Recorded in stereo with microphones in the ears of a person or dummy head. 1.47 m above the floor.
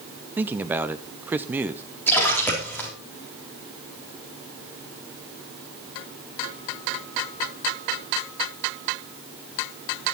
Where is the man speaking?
15° right (ahead or behind), 0.8 m.